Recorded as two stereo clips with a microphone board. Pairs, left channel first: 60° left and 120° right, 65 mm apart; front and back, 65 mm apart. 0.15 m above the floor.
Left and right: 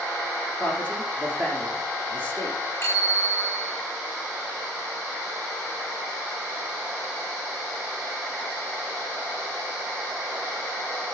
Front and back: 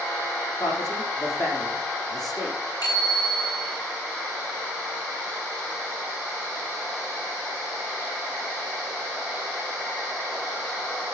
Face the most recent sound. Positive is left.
turn(degrees=5)